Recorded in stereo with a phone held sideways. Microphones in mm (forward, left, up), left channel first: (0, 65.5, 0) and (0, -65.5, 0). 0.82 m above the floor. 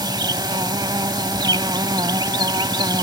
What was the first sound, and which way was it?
An insect, 30° right (ahead or behind).